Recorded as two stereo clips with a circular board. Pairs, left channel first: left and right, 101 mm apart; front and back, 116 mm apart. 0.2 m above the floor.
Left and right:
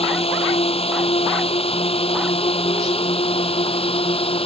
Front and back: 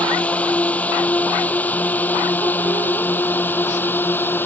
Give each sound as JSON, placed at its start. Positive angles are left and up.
{"t": 0.0, "sound": "a drone", "azimuth_deg": 80}